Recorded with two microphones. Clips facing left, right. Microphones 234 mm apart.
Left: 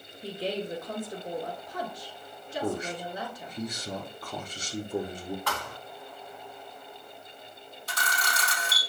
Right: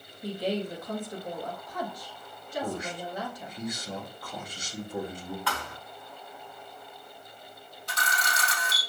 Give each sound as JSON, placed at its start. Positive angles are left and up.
{"t": 0.2, "sound": "a woman speaking", "side_deg": 25, "distance_m": 1.8}
{"t": 2.6, "sound": "a man speaking", "side_deg": 35, "distance_m": 1.3}
{"t": 5.5, "sound": "a thud", "side_deg": 45, "distance_m": 1.7}
{"t": 7.9, "sound": "a camera shutter", "side_deg": 35, "distance_m": 2.5}